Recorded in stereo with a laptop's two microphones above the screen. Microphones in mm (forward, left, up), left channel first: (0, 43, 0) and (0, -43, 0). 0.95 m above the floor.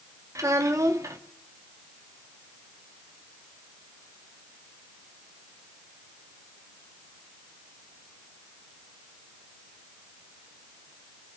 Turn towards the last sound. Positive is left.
turn(degrees=-40)  # may be behind; listen again after turning